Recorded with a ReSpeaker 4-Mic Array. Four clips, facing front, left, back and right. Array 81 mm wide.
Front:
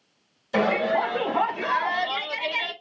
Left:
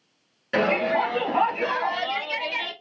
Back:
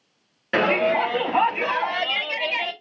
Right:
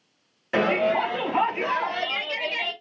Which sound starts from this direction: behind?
A shout, at 0.5 s.